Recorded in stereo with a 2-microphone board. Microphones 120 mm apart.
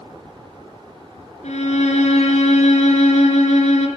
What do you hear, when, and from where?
1.4 s a violin: 75° left (ahead or behind), 3 m